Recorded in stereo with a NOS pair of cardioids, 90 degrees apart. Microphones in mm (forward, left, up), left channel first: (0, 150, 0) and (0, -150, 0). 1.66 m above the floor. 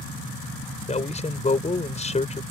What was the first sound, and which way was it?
A man speaking, 20° left.